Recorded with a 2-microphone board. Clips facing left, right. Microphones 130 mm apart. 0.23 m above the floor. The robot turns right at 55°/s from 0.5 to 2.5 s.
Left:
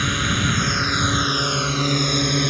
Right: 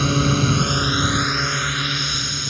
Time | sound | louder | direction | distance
0.0 | a drone | right 5 dB | 35° right | ?